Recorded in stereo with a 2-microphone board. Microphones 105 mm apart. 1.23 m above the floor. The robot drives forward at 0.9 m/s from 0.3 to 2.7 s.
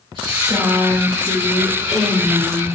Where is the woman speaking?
45° right (ahead or behind), 1.6 m; by 2.6 s 20° right (ahead or behind), 3.5 m.